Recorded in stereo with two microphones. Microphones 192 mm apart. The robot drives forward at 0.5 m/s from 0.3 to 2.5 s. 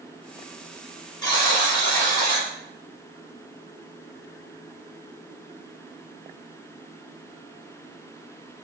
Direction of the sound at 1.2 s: 20° left (ahead or behind).